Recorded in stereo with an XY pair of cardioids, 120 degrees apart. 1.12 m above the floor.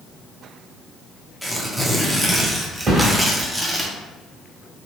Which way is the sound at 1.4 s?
Straight ahead.